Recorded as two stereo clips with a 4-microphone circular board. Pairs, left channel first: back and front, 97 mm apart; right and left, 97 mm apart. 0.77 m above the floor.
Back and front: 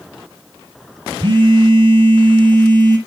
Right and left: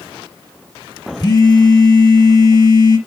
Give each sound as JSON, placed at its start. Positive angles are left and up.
{"t": 1.2, "sound": "a phone buzzing", "azimuth_deg": -40, "distance_m": 1.8}